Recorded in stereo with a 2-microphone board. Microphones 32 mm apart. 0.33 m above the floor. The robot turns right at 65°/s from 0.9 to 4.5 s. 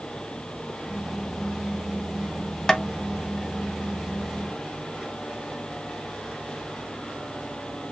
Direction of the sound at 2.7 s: 20° left (ahead or behind).